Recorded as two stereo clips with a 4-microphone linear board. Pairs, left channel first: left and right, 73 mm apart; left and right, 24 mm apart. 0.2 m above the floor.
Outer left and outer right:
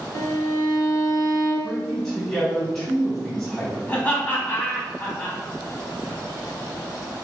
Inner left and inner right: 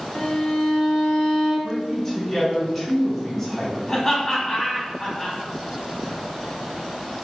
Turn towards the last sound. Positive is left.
turn(degrees=25)  # may be behind; listen again after turning